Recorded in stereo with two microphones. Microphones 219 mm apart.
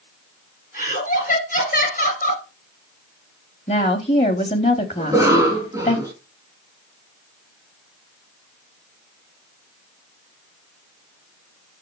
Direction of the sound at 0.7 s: 40° left (ahead or behind).